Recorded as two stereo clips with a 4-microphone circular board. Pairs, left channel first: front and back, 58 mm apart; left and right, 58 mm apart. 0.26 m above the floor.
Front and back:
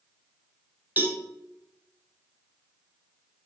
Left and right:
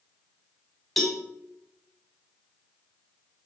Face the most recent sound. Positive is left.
turn(degrees=175)